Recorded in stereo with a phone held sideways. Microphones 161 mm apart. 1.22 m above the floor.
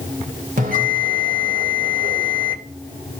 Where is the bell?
70° right (ahead or behind), 3 m.